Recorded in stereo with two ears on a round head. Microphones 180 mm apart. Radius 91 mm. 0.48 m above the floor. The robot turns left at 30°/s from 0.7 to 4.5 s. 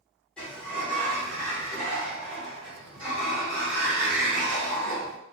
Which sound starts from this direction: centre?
A sliding door, at 0.4 s.